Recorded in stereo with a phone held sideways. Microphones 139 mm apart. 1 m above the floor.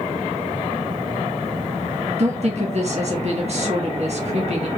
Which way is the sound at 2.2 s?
55° right (ahead or behind).